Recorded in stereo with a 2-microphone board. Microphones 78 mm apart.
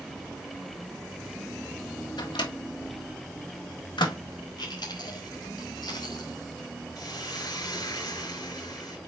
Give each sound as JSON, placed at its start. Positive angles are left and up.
{"t": 2.2, "sound": "a microwave", "side_deg": 70, "distance_m": 1.5}
{"t": 4.6, "sound": "chewing", "side_deg": 70, "distance_m": 4.0}
{"t": 7.0, "sound": "a hiss", "side_deg": 60, "distance_m": 5.0}